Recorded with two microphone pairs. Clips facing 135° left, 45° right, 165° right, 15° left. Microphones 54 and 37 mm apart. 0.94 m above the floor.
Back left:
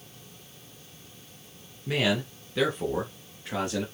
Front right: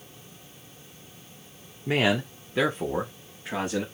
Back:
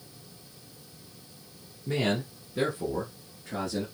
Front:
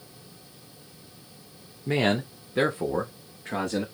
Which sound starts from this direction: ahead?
A man speaking, at 1.9 s.